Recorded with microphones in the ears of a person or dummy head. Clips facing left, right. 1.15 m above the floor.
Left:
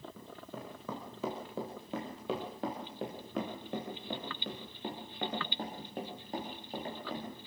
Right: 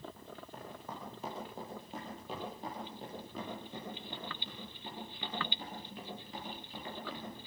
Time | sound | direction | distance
0.2 | running footsteps | 70° left (ahead or behind) | 5 m